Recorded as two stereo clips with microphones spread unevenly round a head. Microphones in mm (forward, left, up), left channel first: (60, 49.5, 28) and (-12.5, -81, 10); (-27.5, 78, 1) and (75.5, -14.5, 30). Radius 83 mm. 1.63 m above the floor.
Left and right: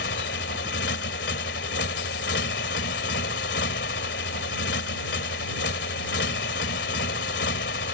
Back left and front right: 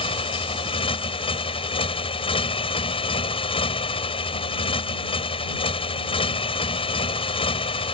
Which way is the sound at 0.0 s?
85° left.